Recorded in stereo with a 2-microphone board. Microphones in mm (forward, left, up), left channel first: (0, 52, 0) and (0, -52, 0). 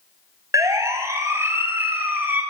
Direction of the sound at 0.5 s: 30° right (ahead or behind).